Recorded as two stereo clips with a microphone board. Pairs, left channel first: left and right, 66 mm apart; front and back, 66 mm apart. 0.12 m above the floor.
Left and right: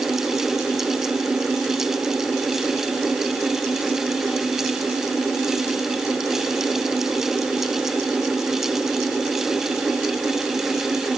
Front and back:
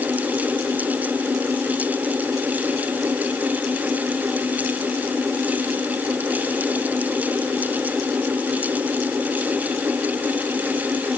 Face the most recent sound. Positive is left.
No sound to turn to.